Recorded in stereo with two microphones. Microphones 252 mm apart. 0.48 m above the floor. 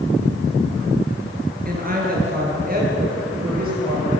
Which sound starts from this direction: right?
A woman speaking, at 1.6 s.